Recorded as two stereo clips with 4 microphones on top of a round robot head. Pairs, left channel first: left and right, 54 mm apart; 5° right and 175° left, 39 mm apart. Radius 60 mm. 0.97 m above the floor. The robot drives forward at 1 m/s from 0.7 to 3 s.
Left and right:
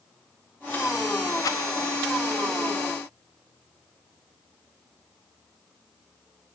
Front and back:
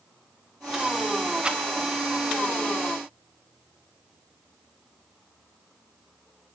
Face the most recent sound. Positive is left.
turn(degrees=130)